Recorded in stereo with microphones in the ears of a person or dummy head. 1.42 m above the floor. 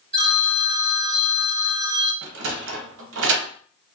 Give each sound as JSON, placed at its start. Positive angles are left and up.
{"t": 0.1, "sound": "a phone ringing", "side_deg": -40, "distance_m": 1.2}
{"t": 2.2, "sound": "a sliding door", "side_deg": -75, "distance_m": 0.6}